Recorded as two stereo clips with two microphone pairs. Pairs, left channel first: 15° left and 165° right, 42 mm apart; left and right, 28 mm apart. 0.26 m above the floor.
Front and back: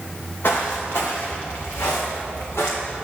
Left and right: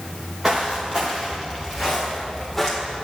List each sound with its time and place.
0.4 s footsteps: 10° right, 1.8 m; by 3.0 s 5° left, 3 m